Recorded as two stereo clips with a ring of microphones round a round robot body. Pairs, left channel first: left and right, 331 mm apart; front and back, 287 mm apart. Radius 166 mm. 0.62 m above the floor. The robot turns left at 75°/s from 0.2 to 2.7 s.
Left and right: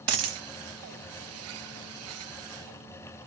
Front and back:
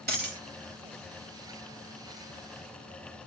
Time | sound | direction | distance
0.1 | a dropped coin | 125° right | 0.7 m